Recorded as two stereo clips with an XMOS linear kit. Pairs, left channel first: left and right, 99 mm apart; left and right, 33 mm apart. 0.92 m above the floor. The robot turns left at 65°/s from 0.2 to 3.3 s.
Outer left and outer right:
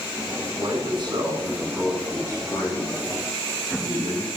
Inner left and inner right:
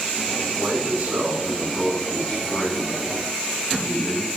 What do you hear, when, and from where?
0.6 s a man speaking: 95° right, 4 m; by 4.3 s 85° left, 4 m